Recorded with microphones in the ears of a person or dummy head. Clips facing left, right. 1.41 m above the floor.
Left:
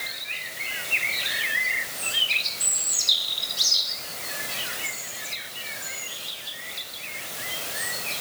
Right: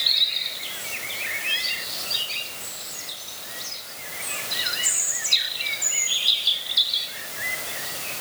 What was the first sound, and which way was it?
Only background noise.